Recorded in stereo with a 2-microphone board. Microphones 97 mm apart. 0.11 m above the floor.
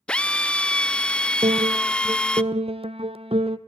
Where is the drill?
10° left (ahead or behind), 0.5 m.